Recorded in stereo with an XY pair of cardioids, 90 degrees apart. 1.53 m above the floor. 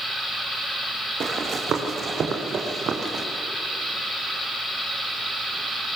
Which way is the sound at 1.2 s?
60° right.